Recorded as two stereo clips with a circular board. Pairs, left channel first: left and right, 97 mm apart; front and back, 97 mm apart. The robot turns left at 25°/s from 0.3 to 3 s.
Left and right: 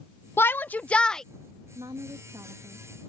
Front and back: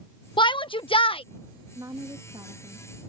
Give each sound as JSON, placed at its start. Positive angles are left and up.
{"t": 0.4, "sound": "a shout", "azimuth_deg": 30}
{"t": 1.8, "sound": "a woman speaking", "azimuth_deg": -125}